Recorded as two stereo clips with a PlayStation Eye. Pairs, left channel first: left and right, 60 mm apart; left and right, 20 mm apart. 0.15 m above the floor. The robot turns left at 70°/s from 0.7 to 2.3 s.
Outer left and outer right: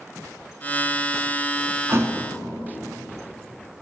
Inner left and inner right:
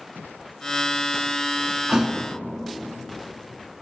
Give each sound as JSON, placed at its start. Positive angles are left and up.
{"t": 1.9, "sound": "a thud", "side_deg": -45, "distance_m": 0.6}